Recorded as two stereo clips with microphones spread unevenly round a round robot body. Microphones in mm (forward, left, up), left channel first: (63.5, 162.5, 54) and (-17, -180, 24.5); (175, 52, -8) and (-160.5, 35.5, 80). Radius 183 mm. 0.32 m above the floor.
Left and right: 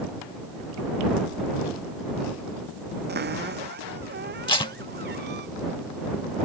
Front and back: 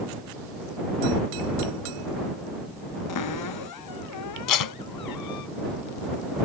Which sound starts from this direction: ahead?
Tape being pulled, at 4.5 s.